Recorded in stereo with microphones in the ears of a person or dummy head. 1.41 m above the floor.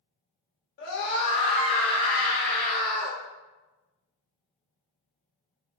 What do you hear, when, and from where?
0.8 s a scream: 60° left (ahead or behind), 2.5 m; by 3.2 s 55° left (ahead or behind), 4 m